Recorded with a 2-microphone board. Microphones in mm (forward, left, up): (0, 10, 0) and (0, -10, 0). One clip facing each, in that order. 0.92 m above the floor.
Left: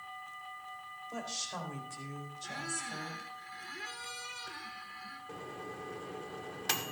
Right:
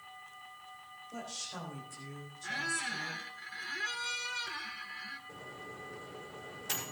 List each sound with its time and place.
1.1 s a woman speaking: 55° left (ahead or behind), 4.5 m; by 3.2 s 45° left (ahead or behind), 3.5 m
2.4 s a squeak: 25° right (ahead or behind), 1.1 m
5.3 s a microwave: 85° left, 1.7 m